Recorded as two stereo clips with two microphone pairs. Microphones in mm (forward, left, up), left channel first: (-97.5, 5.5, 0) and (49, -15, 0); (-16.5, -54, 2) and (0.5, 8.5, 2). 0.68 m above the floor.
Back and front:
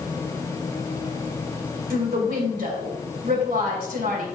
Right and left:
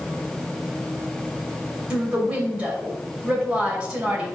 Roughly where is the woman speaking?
Ahead.